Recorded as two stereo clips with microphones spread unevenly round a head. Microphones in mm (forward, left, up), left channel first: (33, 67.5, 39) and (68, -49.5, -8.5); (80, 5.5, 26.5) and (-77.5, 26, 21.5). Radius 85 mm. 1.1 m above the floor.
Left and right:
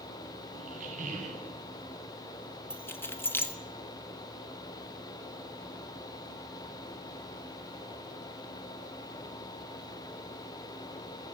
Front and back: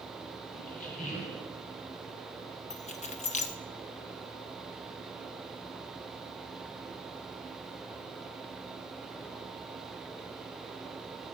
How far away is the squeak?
About 1.8 m.